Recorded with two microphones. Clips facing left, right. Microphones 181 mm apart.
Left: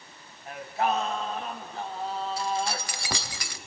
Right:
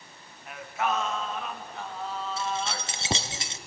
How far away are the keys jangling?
About 0.8 m.